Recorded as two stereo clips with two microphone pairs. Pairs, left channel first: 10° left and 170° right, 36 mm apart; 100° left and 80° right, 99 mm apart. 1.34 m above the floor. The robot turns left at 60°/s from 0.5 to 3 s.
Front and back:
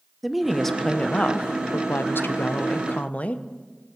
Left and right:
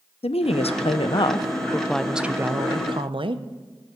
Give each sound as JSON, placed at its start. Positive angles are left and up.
{"t": 0.2, "sound": "a woman speaking", "azimuth_deg": 105, "distance_m": 0.7}